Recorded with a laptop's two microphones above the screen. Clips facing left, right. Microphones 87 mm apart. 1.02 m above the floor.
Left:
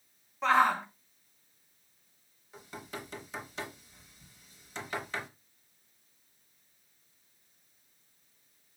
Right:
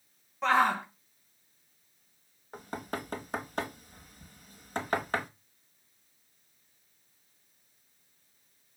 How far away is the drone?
I don't hear a drone.